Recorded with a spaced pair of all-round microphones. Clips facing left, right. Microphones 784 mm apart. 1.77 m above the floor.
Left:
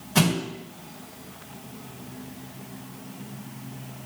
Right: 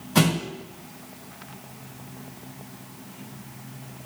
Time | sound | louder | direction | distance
0.1 | a thud | right 1 dB | 5° right (ahead or behind) | 1.6 m